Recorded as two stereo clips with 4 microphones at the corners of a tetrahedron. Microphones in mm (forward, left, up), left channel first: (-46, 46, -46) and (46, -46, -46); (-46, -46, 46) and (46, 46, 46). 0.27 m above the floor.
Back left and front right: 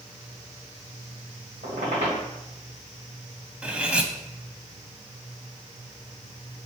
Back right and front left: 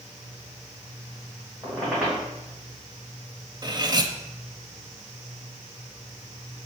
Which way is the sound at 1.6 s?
35° right.